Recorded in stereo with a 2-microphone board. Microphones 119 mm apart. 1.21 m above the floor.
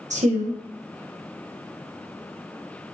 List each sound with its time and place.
0.1 s a woman speaking: 80° right, 0.7 m